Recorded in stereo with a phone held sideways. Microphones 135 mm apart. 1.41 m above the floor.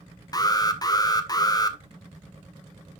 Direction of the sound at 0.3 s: 30° left (ahead or behind).